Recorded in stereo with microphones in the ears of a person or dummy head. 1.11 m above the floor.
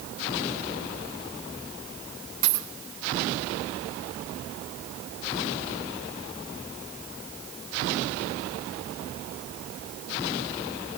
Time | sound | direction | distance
2.4 | a dropped coin | 45° right (ahead or behind) | 5.5 m